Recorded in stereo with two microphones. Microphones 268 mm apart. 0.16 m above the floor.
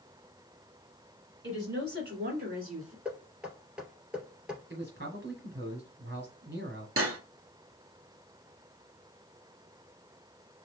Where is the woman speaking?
45° right (ahead or behind), 2 m; by 3.0 s 30° right (ahead or behind), 2.5 m.